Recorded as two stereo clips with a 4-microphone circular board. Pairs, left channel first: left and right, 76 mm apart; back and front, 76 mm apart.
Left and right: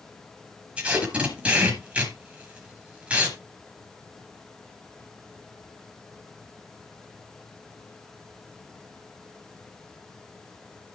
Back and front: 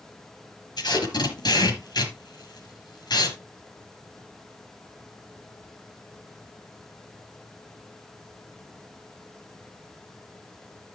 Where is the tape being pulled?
160° right, 4.5 m.